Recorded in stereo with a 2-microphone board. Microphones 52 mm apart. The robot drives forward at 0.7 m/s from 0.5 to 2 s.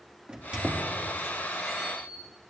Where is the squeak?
20° right (ahead or behind), 1.4 m; by 2.2 s 10° right (ahead or behind), 2 m.